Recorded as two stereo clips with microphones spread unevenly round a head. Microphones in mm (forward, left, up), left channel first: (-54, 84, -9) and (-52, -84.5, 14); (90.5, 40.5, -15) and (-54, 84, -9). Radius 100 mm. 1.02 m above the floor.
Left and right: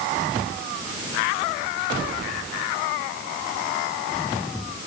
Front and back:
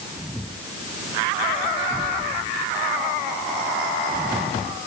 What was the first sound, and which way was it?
Only background noise.